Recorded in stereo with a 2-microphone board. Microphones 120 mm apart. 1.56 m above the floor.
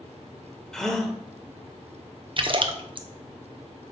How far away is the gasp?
About 1.4 m.